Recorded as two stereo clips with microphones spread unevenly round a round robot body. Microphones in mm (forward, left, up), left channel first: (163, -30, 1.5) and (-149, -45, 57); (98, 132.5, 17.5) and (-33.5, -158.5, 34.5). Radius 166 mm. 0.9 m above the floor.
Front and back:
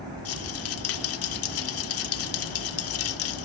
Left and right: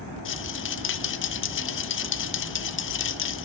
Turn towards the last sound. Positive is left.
turn(degrees=25)